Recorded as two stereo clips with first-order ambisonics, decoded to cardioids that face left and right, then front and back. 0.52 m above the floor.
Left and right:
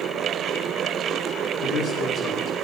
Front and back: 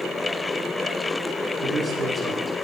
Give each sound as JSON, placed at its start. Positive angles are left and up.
{"t": 1.6, "sound": "a man speaking", "azimuth_deg": 110, "distance_m": 1.4}